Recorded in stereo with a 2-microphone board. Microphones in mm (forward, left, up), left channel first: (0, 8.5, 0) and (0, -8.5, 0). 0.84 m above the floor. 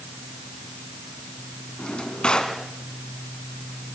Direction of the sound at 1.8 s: 60° left (ahead or behind).